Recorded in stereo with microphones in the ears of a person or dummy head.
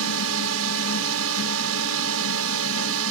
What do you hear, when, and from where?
0.0 s a drone: 80° right